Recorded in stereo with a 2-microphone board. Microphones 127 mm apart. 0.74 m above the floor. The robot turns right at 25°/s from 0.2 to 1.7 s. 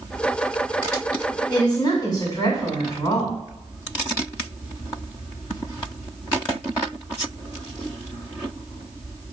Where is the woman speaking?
35° left (ahead or behind), 2.0 m; by 3.4 s 30° left (ahead or behind), 2.0 m.